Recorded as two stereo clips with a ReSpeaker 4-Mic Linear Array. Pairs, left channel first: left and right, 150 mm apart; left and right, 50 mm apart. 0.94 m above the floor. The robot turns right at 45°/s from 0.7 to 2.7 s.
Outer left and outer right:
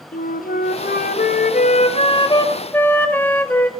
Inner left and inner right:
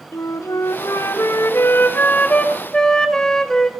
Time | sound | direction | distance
0.1 | a flute | 75° left | 0.6 m